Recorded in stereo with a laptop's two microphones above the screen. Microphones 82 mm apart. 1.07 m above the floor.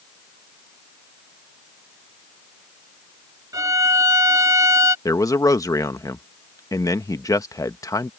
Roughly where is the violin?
Right.